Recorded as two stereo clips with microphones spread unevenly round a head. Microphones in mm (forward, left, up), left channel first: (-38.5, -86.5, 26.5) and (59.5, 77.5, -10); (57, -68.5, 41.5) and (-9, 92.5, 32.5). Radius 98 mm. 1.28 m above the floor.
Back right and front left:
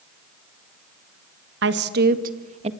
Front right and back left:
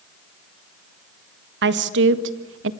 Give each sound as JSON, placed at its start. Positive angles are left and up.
{"t": 1.6, "sound": "a woman speaking", "azimuth_deg": 90, "distance_m": 1.7}